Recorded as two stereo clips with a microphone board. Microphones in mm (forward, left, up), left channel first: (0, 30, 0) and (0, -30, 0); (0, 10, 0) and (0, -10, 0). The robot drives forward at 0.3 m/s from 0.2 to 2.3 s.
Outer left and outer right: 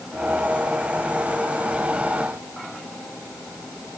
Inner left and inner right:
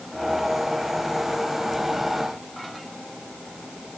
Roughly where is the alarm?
No alarm in this recording.